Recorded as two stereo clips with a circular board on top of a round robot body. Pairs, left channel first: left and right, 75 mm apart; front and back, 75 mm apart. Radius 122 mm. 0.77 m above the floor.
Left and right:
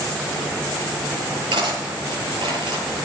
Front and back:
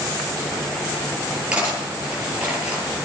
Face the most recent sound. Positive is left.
turn(degrees=-100)